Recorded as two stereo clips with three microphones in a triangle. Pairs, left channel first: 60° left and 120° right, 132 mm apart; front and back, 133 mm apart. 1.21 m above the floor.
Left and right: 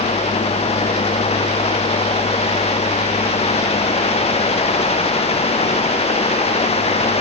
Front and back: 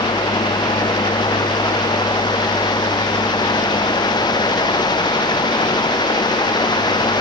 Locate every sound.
Only background noise.